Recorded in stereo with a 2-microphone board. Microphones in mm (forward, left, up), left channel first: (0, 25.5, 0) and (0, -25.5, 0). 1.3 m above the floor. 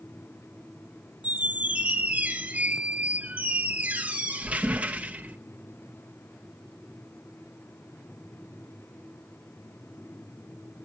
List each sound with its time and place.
1.2 s a squeak: 25° right (ahead or behind), 0.9 m